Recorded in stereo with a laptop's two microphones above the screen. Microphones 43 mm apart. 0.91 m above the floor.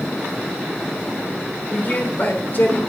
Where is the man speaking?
40° left (ahead or behind), 3 m.